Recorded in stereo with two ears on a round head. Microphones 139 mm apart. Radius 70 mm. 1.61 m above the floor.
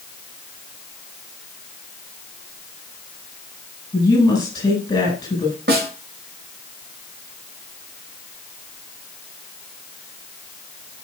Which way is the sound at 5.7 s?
70° right (ahead or behind).